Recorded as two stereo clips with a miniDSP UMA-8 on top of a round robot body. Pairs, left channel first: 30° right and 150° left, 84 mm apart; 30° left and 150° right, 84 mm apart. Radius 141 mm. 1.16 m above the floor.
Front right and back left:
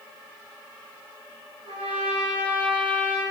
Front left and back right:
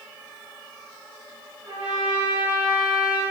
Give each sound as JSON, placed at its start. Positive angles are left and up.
{"t": 1.6, "sound": "a trumpet", "azimuth_deg": 140, "distance_m": 1.8}